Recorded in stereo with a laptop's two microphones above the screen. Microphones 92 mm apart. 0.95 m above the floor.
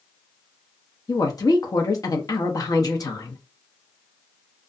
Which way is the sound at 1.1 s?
40° left (ahead or behind).